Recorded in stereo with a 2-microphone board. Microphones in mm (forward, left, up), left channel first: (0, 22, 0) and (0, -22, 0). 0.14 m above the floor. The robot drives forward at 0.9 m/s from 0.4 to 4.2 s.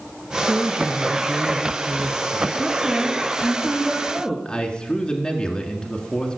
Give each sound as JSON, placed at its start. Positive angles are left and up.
{"t": 0.5, "sound": "a woman speaking", "side_deg": -30, "distance_m": 1.3}
{"t": 2.6, "sound": "a woman speaking", "side_deg": -10, "distance_m": 1.4}
{"t": 4.5, "sound": "a man speaking", "side_deg": 20, "distance_m": 1.6}